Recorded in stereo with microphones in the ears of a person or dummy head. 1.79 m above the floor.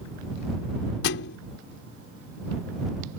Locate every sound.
1.0 s a thud: 60° left (ahead or behind)